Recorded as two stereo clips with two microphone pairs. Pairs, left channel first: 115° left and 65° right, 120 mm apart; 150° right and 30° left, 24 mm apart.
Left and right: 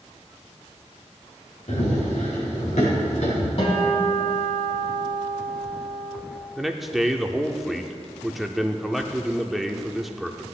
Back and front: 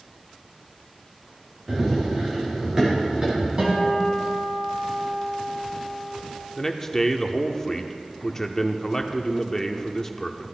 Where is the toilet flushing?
No toilet flushing in this recording.